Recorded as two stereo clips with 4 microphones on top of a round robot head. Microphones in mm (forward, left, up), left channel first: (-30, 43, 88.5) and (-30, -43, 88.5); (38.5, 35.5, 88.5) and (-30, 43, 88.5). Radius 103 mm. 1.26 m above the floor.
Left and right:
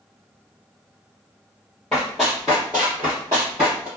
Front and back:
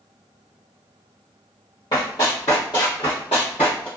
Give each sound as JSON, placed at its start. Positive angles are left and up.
{"t": 1.9, "sound": "running footsteps", "azimuth_deg": 5, "distance_m": 2.0}